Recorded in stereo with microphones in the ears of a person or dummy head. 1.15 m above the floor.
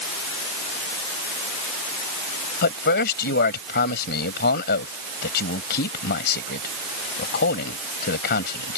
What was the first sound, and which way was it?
A man speaking, 60° left (ahead or behind).